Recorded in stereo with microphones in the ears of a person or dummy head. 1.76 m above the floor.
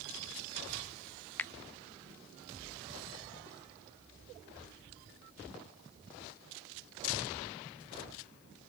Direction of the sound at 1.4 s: 15° left (ahead or behind).